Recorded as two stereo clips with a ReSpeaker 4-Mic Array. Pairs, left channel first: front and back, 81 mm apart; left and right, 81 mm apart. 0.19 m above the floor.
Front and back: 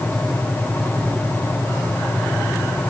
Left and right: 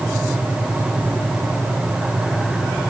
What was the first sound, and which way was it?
Only background noise.